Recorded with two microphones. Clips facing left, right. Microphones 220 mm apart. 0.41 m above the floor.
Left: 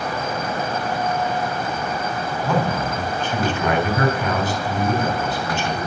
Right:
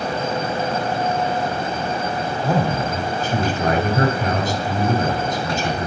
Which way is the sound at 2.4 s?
40° right (ahead or behind).